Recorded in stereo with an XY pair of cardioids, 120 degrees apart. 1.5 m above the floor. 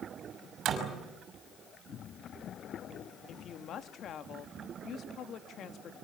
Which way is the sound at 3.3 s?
55° left.